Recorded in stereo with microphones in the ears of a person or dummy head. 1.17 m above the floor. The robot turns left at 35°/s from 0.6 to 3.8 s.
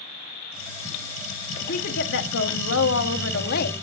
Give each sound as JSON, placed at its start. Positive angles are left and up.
{"t": 1.6, "sound": "a woman speaking", "azimuth_deg": 130, "distance_m": 1.6}